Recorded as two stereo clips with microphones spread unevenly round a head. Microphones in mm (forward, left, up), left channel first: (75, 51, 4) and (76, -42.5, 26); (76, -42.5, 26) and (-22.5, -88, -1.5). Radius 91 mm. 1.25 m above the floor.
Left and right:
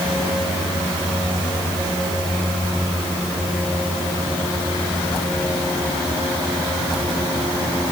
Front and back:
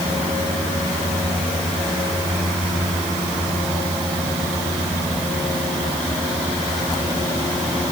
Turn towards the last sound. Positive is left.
No sound to turn to.